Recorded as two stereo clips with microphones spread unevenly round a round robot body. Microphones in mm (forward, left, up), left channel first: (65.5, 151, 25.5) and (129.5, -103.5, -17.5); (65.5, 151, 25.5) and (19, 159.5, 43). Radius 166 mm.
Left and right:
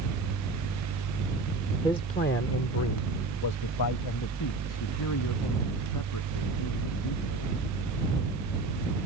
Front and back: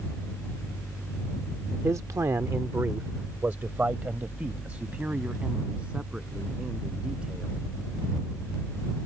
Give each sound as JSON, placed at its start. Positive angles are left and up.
{"t": 1.8, "sound": "a man speaking", "azimuth_deg": -170}